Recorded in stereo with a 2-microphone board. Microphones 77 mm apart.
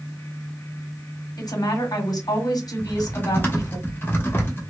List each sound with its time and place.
1.4 s a woman speaking: 60° left (ahead or behind), 1.3 m
2.8 s typing on a keyboard: 30° left (ahead or behind), 1.2 m